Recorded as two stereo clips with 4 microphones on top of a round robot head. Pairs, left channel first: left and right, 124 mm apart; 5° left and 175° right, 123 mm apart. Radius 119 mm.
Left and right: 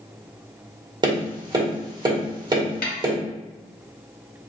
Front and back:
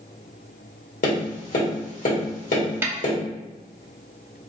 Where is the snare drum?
115° left, 0.5 m.